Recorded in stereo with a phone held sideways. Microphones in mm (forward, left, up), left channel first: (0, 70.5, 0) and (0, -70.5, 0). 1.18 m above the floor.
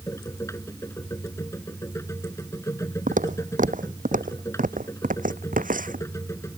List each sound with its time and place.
0.0 s a machine running: 20° left (ahead or behind)
3.1 s footsteps: 70° right (ahead or behind); by 6.0 s 75° right (ahead or behind)